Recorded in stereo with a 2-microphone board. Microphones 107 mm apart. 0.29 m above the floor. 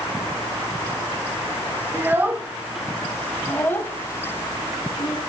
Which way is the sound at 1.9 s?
25° right (ahead or behind).